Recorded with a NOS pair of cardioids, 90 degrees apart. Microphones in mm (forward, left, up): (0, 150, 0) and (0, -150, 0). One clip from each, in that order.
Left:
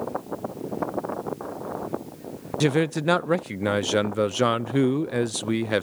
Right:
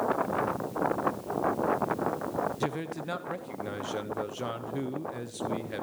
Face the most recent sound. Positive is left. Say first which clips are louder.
# left 10 dB
turn(degrees=65)